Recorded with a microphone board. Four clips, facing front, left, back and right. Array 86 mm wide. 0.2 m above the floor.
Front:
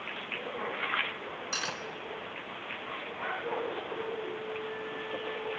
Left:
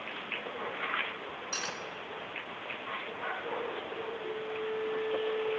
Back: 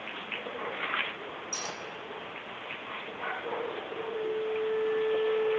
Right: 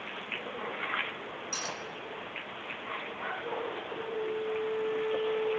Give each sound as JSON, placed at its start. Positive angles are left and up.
{"t": 1.5, "sound": "cutlery clinking", "azimuth_deg": 20, "distance_m": 1.1}
{"t": 4.1, "sound": "a flute", "azimuth_deg": 25, "distance_m": 6.0}